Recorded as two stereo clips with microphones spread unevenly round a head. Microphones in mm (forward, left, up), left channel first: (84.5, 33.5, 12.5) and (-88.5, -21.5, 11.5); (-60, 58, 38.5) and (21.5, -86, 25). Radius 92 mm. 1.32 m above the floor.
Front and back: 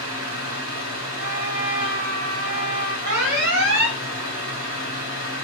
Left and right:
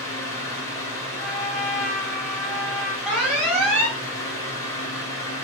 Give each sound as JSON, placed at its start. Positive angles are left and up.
{"t": 0.0, "sound": "a fan", "azimuth_deg": -165, "distance_m": 1.4}
{"t": 1.2, "sound": "a trumpet", "azimuth_deg": -145, "distance_m": 1.1}
{"t": 3.0, "sound": "an alarm", "azimuth_deg": -145, "distance_m": 1.7}